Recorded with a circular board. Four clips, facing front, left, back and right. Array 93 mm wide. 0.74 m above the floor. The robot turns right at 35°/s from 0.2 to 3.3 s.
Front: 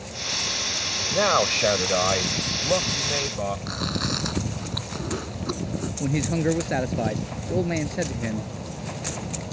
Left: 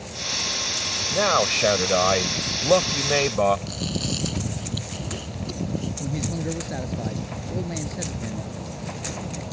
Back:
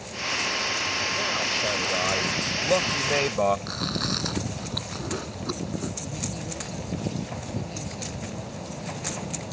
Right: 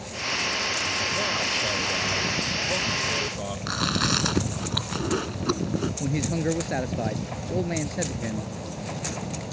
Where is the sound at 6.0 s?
25° right.